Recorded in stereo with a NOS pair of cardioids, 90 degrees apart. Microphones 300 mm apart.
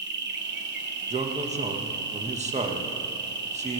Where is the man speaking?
25° right, 1.2 m.